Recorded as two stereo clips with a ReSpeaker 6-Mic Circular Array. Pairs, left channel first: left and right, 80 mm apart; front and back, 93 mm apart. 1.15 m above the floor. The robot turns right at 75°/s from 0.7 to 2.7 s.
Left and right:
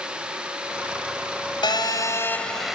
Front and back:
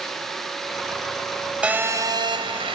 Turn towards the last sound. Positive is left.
turn(degrees=-175)